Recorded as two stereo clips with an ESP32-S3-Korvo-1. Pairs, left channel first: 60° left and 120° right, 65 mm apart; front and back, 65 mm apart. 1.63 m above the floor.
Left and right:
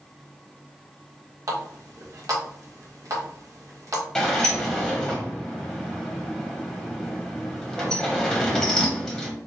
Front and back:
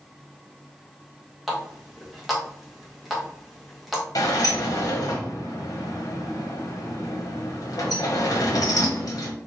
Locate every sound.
1.5 s a running tap: 90° right, 1.4 m
4.2 s a sliding door: 25° right, 1.2 m